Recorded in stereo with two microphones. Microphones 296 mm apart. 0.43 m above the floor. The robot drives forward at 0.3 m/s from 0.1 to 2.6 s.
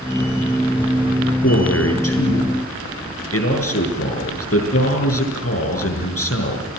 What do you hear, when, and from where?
1.4 s a man speaking: 55° left (ahead or behind), 6 m; by 6.7 s 50° left (ahead or behind), 6 m